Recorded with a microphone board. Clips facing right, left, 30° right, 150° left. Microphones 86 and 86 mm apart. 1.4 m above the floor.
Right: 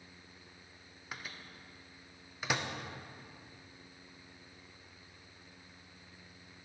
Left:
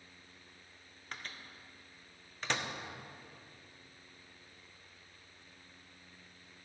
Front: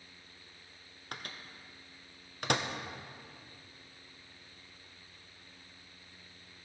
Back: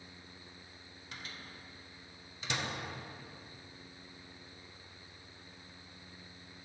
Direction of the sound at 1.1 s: 10° right.